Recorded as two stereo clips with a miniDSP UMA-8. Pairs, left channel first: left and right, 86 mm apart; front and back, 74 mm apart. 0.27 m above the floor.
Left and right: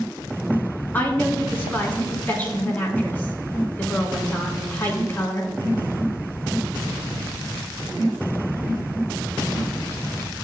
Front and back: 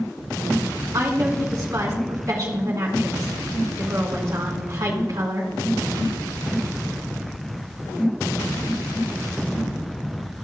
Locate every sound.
0.9 s a woman speaking: 155° left, 3 m